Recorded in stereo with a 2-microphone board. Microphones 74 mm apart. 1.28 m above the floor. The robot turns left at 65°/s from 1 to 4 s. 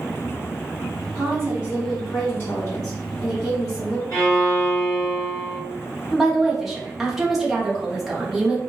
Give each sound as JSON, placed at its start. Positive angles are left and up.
{"t": 1.1, "sound": "a woman speaking", "azimuth_deg": -130, "distance_m": 2.0}
{"t": 4.1, "sound": "a violin", "side_deg": 45, "distance_m": 1.7}
{"t": 6.1, "sound": "a woman speaking", "side_deg": -5, "distance_m": 1.0}